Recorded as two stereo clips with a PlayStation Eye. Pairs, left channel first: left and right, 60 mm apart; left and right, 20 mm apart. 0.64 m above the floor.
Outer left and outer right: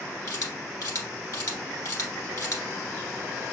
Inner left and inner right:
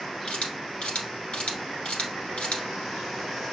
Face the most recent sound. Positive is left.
turn(degrees=70)  # may be behind; listen again after turning